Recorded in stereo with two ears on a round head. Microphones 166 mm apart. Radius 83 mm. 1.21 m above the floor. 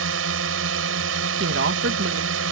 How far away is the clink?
No clink in this recording.